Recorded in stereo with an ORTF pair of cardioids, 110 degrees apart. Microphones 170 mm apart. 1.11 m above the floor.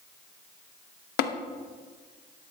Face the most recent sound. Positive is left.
turn(degrees=70)